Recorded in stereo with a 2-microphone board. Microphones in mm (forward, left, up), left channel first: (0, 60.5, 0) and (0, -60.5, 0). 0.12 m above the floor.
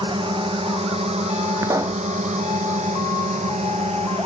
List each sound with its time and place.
0.0 s a drone: 45° right (ahead or behind); by 4.3 s 55° right (ahead or behind)
1.6 s a pop: 25° right (ahead or behind)